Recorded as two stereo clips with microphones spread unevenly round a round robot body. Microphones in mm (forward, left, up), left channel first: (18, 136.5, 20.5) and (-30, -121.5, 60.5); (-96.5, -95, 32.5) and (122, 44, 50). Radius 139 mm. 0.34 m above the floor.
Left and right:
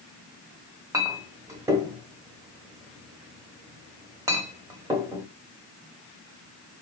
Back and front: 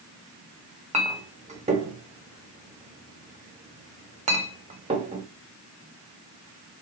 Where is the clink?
20° right, 0.9 m.